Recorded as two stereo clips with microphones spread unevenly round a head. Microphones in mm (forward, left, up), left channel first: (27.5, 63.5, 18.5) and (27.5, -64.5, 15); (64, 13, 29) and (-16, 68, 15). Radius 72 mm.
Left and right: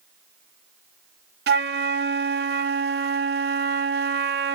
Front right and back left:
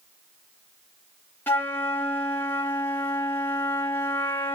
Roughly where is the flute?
Right.